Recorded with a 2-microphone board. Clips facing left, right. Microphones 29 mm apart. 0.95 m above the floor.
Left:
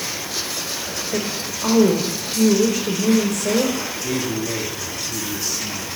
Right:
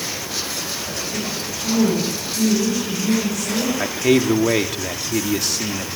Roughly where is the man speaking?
Right.